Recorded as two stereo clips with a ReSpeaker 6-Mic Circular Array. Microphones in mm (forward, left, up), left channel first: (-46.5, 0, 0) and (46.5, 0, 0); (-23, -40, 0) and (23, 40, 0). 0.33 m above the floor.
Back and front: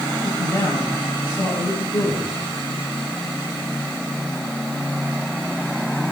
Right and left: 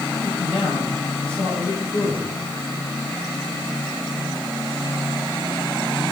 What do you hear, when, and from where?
0.2 s a man speaking: 115° right, 8.5 m